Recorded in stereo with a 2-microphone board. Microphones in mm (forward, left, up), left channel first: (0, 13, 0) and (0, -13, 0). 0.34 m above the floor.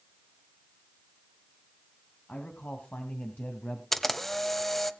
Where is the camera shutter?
5° left (ahead or behind), 1.0 m.